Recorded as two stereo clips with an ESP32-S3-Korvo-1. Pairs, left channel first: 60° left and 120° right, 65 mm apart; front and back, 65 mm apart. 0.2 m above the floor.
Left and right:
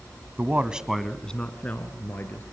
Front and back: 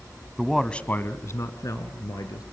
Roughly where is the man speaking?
Right.